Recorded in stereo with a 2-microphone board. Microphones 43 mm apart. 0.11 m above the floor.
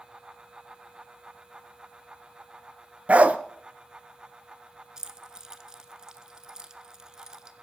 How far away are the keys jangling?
About 0.9 m.